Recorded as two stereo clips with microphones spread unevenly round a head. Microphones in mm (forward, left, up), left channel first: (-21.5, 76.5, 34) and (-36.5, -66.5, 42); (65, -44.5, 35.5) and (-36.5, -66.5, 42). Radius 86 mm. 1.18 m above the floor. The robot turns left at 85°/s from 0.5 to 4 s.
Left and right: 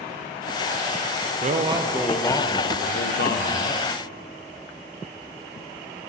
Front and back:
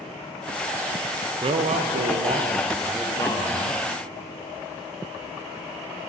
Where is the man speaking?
130° right, 0.5 m; by 3.8 s 25° left, 0.5 m.